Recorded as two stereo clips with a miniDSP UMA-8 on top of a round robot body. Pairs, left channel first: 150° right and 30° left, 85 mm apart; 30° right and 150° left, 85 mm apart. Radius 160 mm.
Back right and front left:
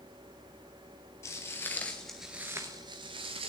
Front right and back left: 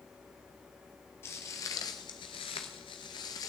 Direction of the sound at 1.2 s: 90° right.